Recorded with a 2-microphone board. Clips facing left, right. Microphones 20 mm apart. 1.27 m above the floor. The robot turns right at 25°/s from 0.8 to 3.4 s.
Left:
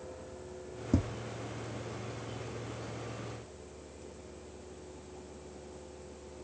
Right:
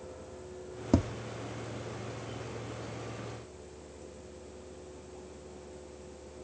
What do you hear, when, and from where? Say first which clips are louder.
0.9 s tapping: right 4 dB; 45° right (ahead or behind), 0.6 m; by 1.1 s 40° right (ahead or behind), 0.6 m